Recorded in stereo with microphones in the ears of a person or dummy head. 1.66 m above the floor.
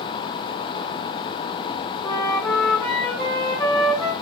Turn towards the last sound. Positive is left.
turn(degrees=15)  # may be behind; listen again after turning